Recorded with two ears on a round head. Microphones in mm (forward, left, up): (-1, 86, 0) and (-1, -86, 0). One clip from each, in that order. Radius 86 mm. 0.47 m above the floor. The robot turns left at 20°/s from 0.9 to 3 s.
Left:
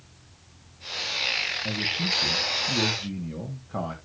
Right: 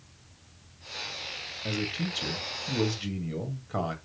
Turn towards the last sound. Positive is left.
turn(degrees=-65)  # may be behind; listen again after turning